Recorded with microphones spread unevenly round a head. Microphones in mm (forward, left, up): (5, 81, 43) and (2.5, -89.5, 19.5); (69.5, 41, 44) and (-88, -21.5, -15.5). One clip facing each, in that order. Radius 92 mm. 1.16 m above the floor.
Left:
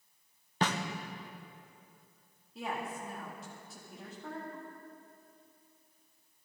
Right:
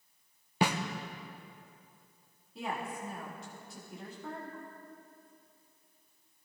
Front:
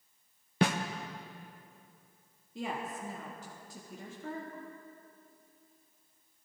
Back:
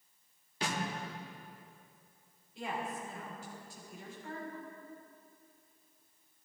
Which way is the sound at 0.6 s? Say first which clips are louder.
Right 2 dB, front 9 dB; 20° right.